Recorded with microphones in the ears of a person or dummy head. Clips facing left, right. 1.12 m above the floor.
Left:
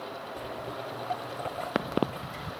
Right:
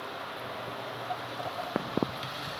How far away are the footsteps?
About 1.6 m.